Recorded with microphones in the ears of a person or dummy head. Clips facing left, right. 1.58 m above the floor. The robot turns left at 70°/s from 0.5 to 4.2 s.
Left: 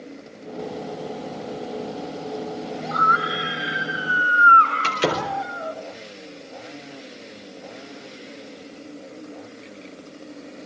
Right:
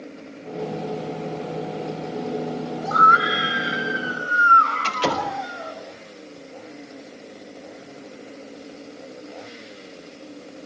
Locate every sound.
2.8 s a scream: 115° right, 6.5 m; by 5.8 s 150° left, 6.5 m
4.8 s a door slam: 25° left (ahead or behind), 4.5 m